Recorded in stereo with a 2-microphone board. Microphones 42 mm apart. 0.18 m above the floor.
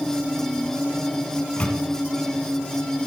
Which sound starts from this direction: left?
A microwave, at 1.4 s.